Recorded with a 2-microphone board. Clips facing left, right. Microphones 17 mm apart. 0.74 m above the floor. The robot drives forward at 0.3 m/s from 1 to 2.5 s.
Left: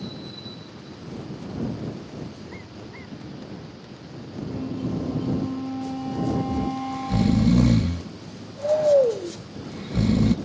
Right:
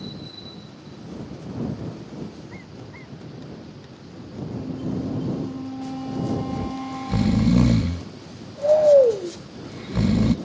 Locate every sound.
4.5 s a flute: 25° left (ahead or behind)
6.5 s snoring: 25° right (ahead or behind)